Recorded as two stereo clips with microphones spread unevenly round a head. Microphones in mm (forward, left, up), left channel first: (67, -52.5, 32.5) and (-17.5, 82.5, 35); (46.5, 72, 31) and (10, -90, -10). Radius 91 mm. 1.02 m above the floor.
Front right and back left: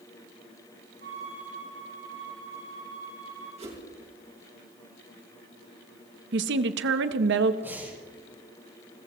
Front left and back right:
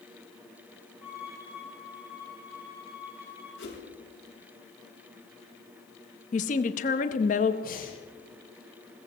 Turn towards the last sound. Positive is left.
turn(degrees=45)